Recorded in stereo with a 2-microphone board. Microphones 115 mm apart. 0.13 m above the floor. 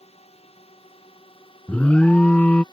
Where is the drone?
65° left (ahead or behind); by 2.7 s 40° left (ahead or behind).